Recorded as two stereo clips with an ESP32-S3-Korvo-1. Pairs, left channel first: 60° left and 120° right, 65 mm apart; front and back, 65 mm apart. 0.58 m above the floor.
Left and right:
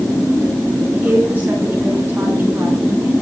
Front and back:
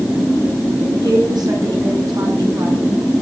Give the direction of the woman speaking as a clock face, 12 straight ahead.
6 o'clock.